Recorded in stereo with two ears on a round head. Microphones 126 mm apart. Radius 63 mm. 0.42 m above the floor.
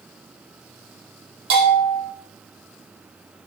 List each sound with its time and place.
1.5 s a bell: 80° right, 3.5 m